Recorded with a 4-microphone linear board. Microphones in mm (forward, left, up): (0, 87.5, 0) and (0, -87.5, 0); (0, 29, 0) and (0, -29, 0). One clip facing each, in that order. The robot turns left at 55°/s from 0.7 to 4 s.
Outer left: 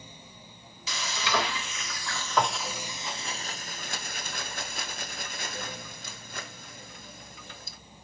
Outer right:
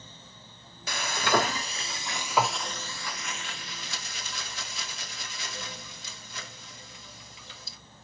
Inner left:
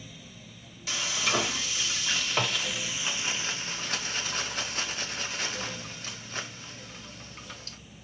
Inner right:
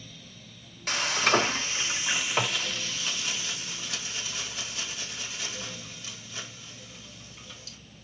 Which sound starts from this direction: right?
Frying, at 0.9 s.